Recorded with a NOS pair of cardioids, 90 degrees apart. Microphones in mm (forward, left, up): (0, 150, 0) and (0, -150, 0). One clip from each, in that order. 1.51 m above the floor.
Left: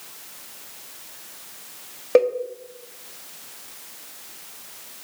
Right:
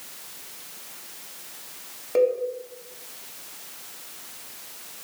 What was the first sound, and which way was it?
A cowbell, 50° left.